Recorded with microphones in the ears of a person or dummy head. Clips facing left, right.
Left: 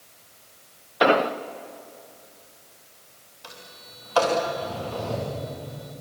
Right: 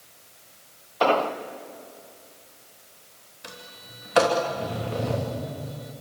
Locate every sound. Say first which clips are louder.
1.0 s an explosion: left 2 dB; 25° left (ahead or behind), 0.9 m
3.4 s a sliding door: right 2 dB; 25° right (ahead or behind), 3 m